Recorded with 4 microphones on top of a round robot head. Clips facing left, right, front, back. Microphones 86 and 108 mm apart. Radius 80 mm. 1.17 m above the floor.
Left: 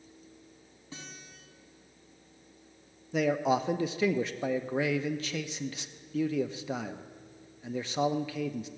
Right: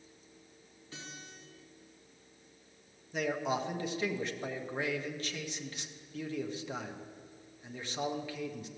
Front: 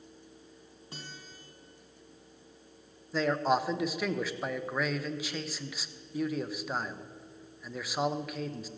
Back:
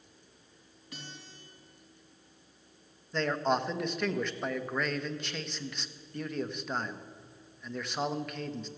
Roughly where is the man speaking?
Left.